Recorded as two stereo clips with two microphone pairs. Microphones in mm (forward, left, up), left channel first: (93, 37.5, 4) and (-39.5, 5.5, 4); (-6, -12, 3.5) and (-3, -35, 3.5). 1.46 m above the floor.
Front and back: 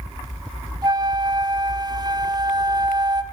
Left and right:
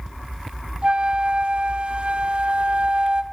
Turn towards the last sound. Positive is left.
turn(degrees=-110)